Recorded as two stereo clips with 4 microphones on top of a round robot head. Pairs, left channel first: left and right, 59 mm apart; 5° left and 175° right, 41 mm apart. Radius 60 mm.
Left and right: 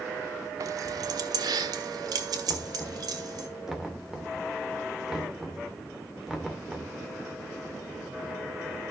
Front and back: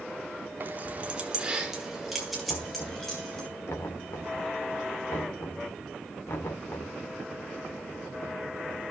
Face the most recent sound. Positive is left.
turn(degrees=-5)